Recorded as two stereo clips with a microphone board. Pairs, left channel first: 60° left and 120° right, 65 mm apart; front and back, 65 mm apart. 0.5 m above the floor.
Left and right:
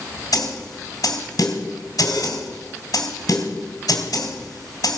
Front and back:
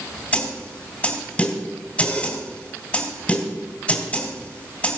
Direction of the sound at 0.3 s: 70° left.